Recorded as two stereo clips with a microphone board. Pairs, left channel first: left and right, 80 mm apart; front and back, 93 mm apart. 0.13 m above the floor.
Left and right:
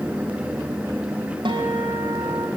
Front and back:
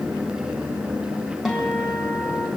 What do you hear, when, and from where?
1.4 s a guitar: 90° right, 9.5 m